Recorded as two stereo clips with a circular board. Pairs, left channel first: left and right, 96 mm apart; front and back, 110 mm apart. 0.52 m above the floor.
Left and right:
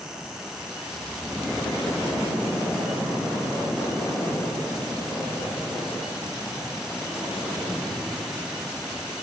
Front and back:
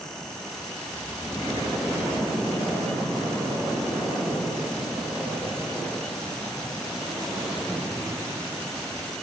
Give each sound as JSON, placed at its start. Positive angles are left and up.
{"t": 0.9, "sound": "snoring", "azimuth_deg": 45, "distance_m": 3.0}